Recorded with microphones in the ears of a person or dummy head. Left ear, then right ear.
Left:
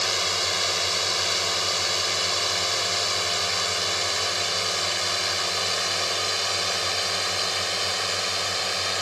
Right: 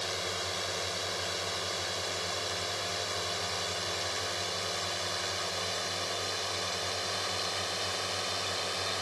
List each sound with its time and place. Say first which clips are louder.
0.0 s a drone: left 10 dB; 30° left (ahead or behind); by 9.0 s 15° left (ahead or behind)